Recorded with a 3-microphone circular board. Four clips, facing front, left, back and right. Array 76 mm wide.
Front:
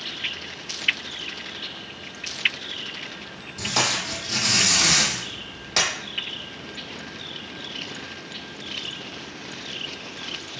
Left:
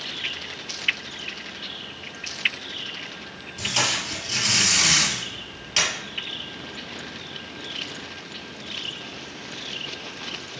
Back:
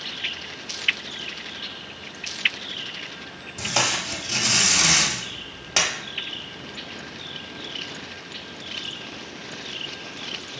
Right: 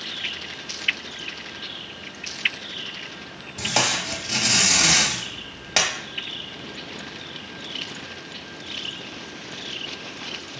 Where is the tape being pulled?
100° right, 1.2 m.